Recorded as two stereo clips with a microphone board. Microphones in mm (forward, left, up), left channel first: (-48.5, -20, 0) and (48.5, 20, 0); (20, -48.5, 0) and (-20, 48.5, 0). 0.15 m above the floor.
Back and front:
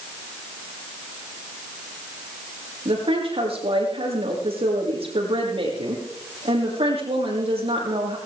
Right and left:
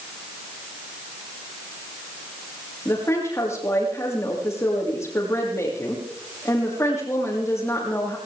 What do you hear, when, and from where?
2.9 s a woman speaking: 5° right, 6 m